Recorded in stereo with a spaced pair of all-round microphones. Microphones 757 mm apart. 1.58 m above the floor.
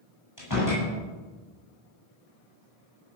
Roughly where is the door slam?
Left.